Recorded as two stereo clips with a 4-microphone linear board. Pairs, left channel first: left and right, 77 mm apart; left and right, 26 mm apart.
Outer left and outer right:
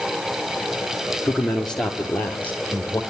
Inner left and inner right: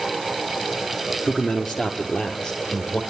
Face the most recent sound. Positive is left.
turn(degrees=25)  # may be behind; listen again after turning